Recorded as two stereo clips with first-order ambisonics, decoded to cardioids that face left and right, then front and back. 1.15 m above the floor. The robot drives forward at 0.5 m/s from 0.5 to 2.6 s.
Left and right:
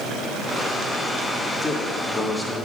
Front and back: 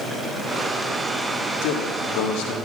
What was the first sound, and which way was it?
A man speaking, 5° left.